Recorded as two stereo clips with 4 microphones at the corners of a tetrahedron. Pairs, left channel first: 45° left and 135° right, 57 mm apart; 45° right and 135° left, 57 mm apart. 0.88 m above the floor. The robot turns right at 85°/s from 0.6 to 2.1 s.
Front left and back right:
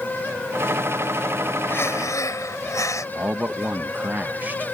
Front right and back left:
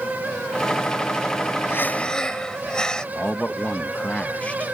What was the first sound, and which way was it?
Breathing, 5° right.